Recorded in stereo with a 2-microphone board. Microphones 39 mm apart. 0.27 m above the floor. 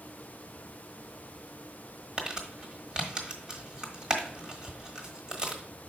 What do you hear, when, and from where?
2.2 s crumpling: 20° right (ahead or behind), 1.3 m